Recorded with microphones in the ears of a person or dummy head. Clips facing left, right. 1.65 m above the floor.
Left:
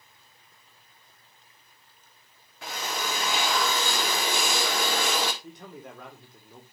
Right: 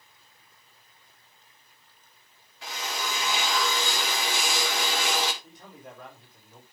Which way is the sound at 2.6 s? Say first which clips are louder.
Left 2 dB; 40° left (ahead or behind).